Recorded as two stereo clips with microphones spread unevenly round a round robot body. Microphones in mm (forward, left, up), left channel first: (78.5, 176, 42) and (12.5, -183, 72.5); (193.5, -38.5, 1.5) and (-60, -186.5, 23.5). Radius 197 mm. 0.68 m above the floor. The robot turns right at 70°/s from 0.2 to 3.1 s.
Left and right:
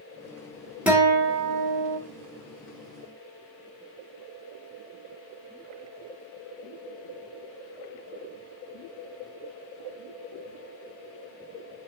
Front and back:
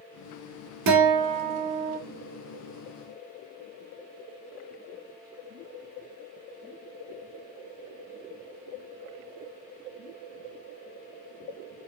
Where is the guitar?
170° left, 1.1 m; by 2.0 s 110° right, 1.1 m.